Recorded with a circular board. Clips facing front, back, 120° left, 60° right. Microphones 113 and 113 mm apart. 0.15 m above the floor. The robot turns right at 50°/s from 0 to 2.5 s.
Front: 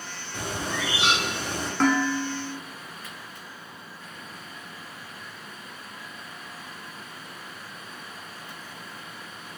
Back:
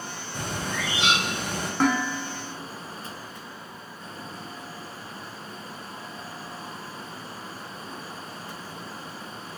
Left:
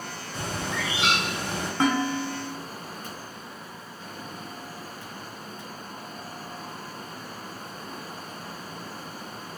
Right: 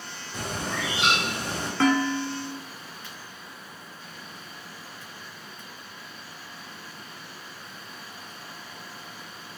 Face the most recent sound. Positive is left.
turn(degrees=150)